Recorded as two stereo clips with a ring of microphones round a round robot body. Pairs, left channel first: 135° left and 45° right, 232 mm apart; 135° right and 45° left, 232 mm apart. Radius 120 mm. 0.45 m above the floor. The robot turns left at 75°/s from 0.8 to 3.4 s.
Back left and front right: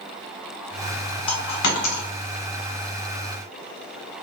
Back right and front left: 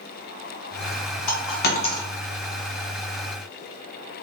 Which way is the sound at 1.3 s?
155° right.